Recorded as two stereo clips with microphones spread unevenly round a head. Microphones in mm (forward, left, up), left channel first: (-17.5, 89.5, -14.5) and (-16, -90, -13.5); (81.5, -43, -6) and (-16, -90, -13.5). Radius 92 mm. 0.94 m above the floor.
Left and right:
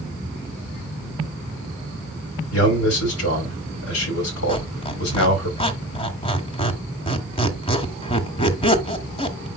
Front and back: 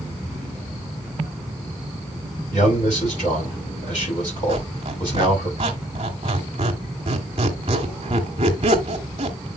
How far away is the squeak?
About 1.6 m.